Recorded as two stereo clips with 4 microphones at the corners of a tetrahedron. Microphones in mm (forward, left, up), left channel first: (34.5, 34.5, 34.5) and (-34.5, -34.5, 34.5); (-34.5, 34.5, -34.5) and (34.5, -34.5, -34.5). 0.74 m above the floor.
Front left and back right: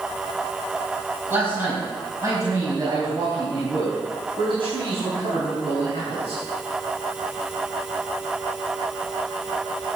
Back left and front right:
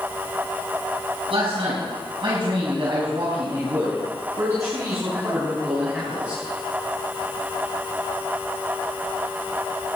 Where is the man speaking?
65° right, 5 m; by 6.4 s 120° right, 6 m.